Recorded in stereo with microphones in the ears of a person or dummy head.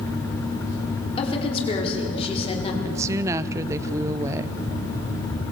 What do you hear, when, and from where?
1.2 s a woman speaking: 30° left (ahead or behind), 4.5 m
2.8 s a woman speaking: 15° right (ahead or behind), 0.7 m